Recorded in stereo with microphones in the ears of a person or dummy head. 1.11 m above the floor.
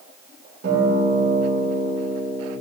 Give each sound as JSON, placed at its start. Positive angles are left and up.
{"t": 0.6, "sound": "a guitar", "side_deg": -60, "distance_m": 3.0}